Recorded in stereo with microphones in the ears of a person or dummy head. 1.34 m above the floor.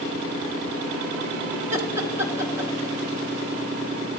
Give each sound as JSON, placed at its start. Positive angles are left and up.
{"t": 1.7, "sound": "laughter", "side_deg": -20, "distance_m": 1.2}